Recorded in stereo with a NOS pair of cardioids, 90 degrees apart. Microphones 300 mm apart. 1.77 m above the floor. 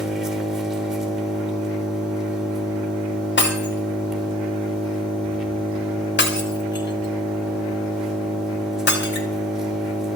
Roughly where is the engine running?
Ahead.